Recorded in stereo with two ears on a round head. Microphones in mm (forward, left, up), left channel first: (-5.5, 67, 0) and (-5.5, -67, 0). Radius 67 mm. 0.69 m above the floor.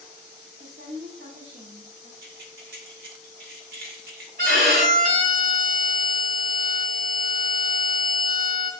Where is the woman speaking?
60° right (ahead or behind), 0.8 m.